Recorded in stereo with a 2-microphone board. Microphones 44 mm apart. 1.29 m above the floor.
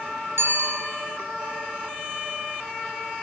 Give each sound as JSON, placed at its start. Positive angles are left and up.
{"t": 0.4, "sound": "a bicycle bell", "side_deg": -75, "distance_m": 9.0}